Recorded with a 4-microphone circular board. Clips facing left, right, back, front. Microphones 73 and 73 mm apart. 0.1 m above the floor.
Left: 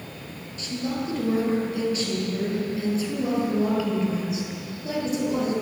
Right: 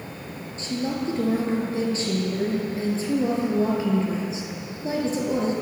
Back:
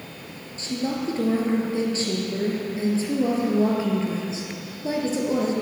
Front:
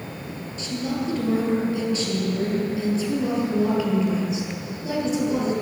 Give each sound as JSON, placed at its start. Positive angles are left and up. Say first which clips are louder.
{"t": 0.6, "sound": "a woman speaking", "louder": "right 2 dB, back 1 dB", "azimuth_deg": -140, "distance_m": 1.9}